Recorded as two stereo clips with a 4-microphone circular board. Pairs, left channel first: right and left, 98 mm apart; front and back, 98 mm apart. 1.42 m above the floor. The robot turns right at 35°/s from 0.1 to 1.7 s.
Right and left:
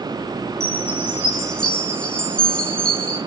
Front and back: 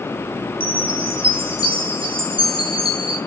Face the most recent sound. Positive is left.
turn(degrees=-170)